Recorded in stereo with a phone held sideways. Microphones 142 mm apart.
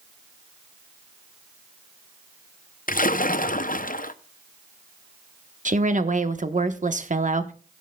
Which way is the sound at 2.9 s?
75° left (ahead or behind).